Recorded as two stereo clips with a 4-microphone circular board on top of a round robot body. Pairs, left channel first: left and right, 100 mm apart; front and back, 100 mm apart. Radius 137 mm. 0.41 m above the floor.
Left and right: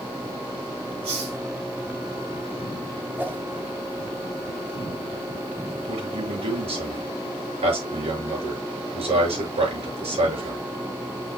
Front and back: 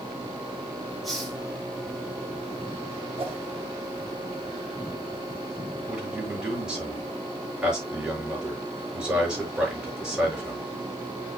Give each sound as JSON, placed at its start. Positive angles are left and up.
{"t": 1.0, "sound": "a hiss", "azimuth_deg": -90, "distance_m": 4.5}
{"t": 3.2, "sound": "a whoosh", "azimuth_deg": -160, "distance_m": 2.0}
{"t": 5.9, "sound": "a man speaking", "azimuth_deg": -100, "distance_m": 7.0}